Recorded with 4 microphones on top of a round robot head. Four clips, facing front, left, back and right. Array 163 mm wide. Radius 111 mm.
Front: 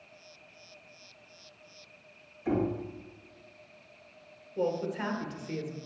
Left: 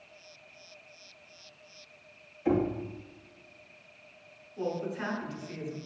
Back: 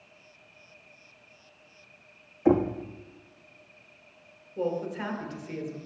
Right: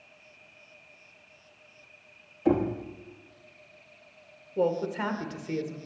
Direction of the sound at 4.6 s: 85° right.